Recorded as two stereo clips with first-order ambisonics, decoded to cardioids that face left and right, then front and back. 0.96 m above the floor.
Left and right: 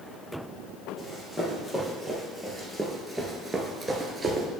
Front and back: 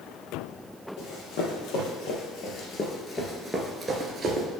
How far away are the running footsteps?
About 1.9 m.